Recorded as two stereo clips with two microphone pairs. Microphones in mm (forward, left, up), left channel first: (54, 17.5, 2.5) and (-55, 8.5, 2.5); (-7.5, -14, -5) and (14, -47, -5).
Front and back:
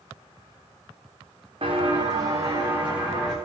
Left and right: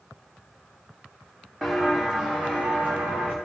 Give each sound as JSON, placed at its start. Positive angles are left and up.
{"t": 1.6, "sound": "footsteps", "azimuth_deg": -140, "distance_m": 1.9}